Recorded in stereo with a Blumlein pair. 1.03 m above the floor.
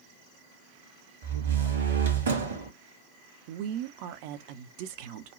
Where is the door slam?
65° right, 1.3 m.